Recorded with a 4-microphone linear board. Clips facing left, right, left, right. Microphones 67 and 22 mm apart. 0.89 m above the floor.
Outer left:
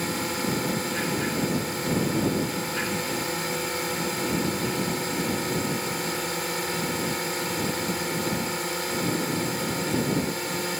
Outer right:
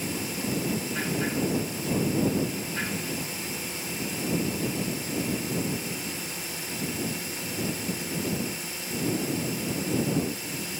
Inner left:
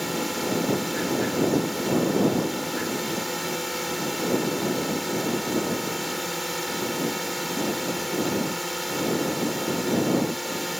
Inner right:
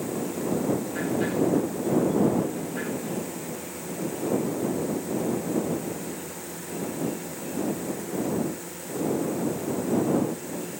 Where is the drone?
65° left (ahead or behind).